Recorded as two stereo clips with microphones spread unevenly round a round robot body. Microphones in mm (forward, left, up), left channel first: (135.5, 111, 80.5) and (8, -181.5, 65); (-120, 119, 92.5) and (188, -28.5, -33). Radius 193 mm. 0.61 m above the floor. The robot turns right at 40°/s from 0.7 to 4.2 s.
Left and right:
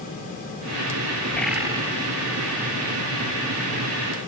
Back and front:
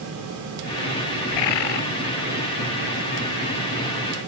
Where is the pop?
I don't hear a pop.